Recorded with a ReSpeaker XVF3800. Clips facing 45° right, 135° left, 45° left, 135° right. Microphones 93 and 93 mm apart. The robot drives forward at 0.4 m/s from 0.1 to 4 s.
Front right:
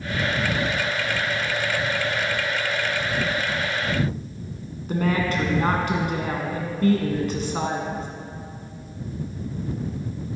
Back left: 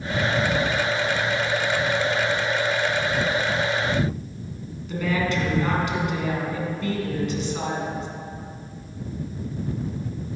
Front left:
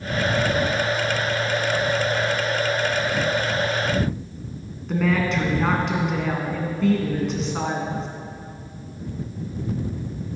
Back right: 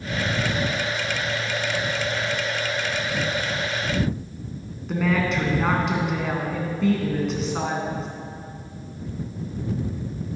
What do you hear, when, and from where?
4.9 s a woman speaking: 45° right, 1.7 m